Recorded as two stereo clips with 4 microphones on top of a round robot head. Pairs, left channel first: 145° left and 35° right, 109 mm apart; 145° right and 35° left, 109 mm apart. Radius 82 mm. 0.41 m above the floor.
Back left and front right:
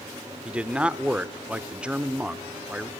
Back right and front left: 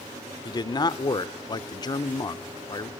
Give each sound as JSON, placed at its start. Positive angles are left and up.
{"t": 0.5, "sound": "a man speaking", "azimuth_deg": -115, "distance_m": 1.0}